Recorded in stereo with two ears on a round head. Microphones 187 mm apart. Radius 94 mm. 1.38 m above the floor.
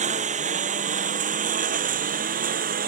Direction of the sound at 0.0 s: 35° right (ahead or behind).